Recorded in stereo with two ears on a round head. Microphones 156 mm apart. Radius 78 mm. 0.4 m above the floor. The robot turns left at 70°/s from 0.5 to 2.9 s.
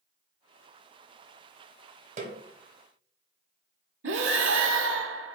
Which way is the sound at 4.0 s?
75° right (ahead or behind).